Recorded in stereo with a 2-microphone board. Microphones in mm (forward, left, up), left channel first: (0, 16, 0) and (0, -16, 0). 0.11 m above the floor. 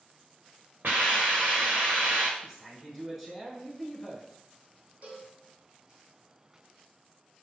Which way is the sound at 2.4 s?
10° right (ahead or behind).